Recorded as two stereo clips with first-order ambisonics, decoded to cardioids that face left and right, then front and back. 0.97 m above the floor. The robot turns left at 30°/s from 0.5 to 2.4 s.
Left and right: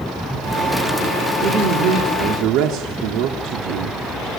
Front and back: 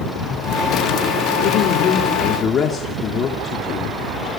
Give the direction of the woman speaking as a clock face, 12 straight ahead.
1 o'clock.